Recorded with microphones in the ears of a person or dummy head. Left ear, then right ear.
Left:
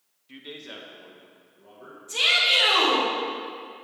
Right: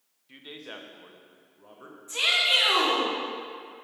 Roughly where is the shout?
Right.